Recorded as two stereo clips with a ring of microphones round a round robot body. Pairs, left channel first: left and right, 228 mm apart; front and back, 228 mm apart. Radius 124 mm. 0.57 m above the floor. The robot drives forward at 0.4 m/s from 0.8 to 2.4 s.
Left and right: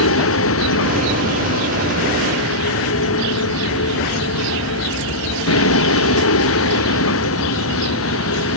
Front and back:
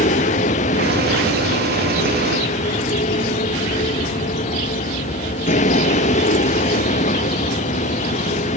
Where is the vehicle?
65° left.